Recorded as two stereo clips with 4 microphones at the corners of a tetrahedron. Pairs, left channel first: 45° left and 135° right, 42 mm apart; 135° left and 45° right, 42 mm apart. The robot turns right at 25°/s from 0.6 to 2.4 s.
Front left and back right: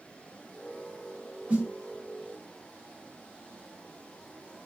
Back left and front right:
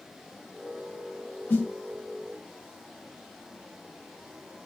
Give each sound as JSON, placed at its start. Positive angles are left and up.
{"t": 1.5, "sound": "a snare drum", "azimuth_deg": 165, "distance_m": 0.9}